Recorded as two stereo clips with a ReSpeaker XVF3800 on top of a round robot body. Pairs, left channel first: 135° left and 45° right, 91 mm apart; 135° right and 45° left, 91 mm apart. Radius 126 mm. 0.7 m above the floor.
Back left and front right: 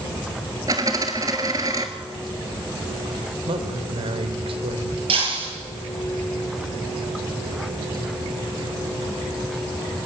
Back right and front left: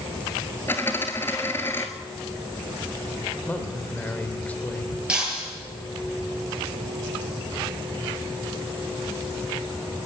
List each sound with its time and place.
0.7 s a dropped coin: 75° right, 0.6 m
3.5 s a man speaking: 60° right, 3 m
5.1 s breaking glass: 35° right, 9 m